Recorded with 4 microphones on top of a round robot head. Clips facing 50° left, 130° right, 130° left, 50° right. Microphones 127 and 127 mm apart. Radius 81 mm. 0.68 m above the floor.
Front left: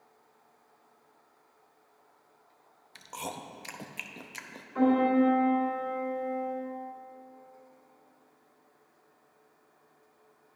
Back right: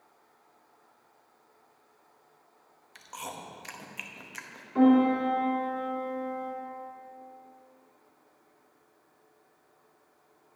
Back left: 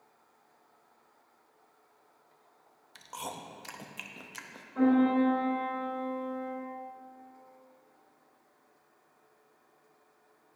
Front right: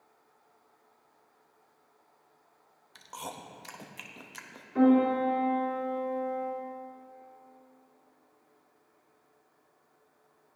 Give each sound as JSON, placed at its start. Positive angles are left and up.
{"t": 3.0, "sound": "chewing", "azimuth_deg": 45, "distance_m": 0.7}
{"t": 4.8, "sound": "a piano", "azimuth_deg": -75, "distance_m": 3.0}